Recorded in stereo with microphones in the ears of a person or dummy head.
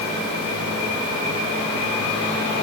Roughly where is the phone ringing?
I don't hear a phone ringing.